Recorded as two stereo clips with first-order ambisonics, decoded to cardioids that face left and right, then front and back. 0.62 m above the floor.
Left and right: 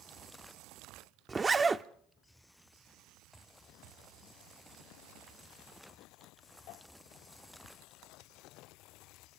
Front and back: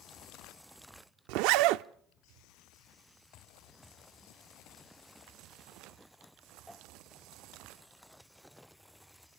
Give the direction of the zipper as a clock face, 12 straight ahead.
5 o'clock.